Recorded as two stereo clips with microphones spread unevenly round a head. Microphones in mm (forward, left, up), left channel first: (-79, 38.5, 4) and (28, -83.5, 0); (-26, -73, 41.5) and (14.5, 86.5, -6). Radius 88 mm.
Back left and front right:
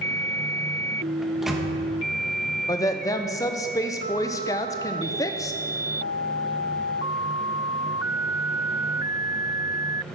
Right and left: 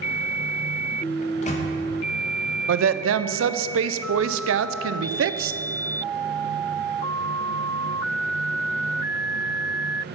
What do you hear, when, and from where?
1.2 s a microwave: 140° right, 1.1 m
2.7 s a woman speaking: 60° left, 0.5 m